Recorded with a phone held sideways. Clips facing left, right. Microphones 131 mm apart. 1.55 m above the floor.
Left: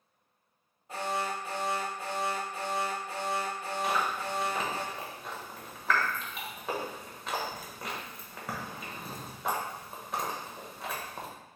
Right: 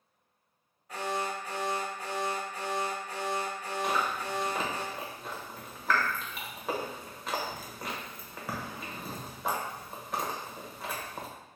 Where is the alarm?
30° left (ahead or behind), 1.1 m.